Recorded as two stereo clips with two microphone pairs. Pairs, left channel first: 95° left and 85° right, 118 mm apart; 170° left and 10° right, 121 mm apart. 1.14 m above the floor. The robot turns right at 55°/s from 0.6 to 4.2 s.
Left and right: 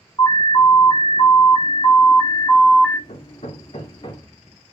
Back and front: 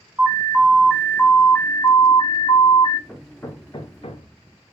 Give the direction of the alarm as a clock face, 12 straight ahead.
10 o'clock.